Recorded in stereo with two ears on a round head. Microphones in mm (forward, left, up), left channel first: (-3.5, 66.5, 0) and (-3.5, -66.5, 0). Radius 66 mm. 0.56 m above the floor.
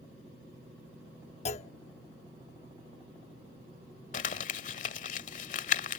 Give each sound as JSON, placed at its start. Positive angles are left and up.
{"t": 1.4, "sound": "a clunk", "side_deg": 45}
{"t": 4.1, "sound": "crumpling", "side_deg": 55}